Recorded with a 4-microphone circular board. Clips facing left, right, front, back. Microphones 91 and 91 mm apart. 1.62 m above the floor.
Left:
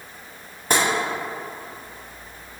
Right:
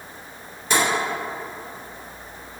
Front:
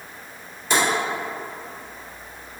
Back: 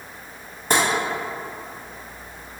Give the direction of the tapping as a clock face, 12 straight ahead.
7 o'clock.